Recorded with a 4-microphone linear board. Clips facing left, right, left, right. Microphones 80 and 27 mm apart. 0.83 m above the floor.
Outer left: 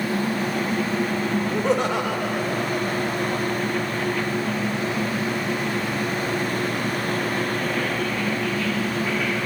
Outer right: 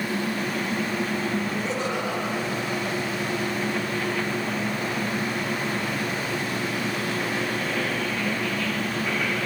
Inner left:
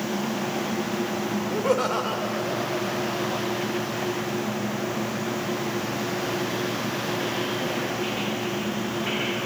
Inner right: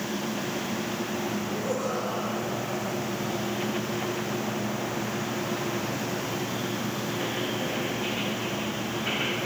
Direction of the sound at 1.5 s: 70° left (ahead or behind).